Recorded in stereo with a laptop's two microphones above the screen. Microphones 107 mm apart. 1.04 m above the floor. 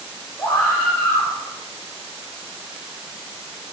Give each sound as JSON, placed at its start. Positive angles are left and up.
{"t": 0.4, "sound": "a scream", "side_deg": 20, "distance_m": 4.0}